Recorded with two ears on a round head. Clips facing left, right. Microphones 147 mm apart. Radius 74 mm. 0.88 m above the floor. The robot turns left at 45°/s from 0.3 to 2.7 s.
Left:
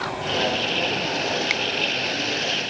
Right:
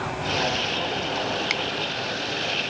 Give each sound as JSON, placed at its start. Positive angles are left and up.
{"t": 1.5, "sound": "a finger snap", "side_deg": 5}